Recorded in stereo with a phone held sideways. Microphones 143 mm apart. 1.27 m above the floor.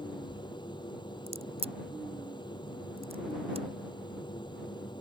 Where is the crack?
45° right (ahead or behind).